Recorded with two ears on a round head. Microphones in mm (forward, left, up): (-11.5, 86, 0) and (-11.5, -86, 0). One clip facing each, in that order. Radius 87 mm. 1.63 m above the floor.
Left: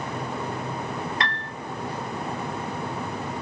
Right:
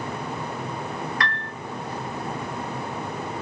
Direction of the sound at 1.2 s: 20° left (ahead or behind).